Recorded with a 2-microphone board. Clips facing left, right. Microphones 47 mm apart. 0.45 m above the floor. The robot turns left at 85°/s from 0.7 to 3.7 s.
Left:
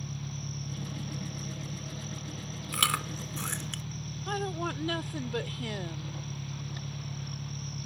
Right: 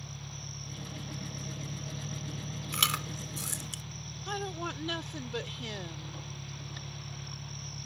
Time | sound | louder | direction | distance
0.0 | an engine running | left 5 dB | 50° left | ?
2.7 | chewing | left 2 dB | 5° left (ahead or behind) | ?
4.3 | a woman speaking | left 3 dB | 10° left (ahead or behind) | ?